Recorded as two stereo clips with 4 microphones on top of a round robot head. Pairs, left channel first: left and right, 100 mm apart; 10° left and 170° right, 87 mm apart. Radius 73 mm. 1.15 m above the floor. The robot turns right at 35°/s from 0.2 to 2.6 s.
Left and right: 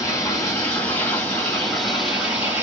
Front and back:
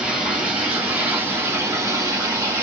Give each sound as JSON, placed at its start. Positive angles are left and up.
{"t": 0.0, "sound": "running water", "azimuth_deg": 125, "distance_m": 1.0}